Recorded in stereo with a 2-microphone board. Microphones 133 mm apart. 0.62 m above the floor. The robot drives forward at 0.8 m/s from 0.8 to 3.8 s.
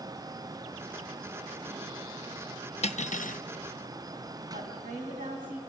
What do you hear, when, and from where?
2.8 s cutlery clinking: 50° left (ahead or behind), 0.7 m; by 3.4 s 75° left (ahead or behind), 0.6 m
4.5 s a woman speaking: 80° right, 4 m